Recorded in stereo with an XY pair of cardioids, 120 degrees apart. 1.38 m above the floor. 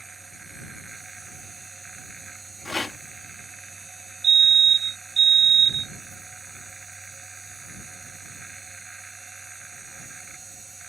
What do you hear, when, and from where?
0.0 s a machine running: 20° right
2.6 s a rattle: 15° left
4.2 s a fire alarm: 45° right